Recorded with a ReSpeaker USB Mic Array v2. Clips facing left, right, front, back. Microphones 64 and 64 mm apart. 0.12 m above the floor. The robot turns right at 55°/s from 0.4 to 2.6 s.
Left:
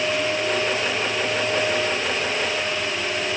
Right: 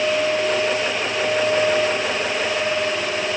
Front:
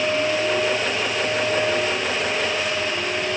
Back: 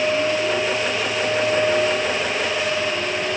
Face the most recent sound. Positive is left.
No sound to turn to.